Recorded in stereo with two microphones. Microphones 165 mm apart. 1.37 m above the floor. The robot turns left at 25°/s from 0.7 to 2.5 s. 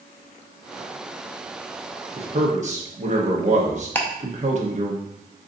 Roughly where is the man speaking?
Right.